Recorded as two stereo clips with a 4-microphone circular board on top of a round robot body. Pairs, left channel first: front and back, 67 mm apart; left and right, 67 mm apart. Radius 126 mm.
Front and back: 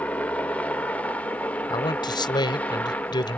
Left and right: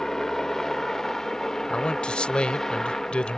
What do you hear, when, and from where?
0.0 s a helicopter: 15° left
1.7 s a man speaking: 10° left